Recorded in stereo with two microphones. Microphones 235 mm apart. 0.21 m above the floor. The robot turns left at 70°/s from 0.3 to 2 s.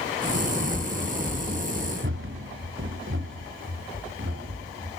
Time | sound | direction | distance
0.7 | running footsteps | 20° left (ahead or behind) | 0.8 m